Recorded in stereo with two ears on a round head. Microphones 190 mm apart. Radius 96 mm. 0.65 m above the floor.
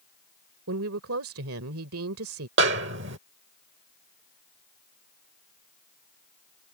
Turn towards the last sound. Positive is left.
turn(degrees=-55)  # may be behind; listen again after turning